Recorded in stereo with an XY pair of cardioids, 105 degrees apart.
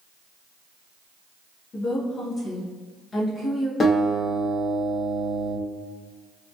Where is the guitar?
40° left, 1.1 m.